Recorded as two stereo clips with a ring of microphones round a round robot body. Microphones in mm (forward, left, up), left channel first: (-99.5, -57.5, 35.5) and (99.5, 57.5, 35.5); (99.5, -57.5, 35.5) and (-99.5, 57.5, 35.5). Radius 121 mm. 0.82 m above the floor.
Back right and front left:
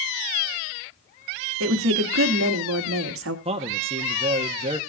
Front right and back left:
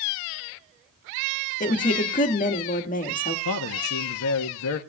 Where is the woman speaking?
20° left, 1.6 m.